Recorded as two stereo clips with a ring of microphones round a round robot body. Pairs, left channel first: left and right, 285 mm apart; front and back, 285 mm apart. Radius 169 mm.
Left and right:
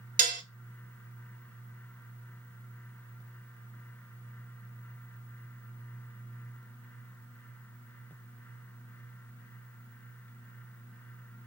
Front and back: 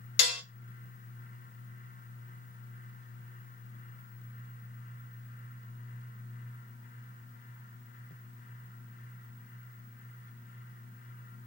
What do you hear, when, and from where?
0.2 s dishes clattering: 25° right, 0.7 m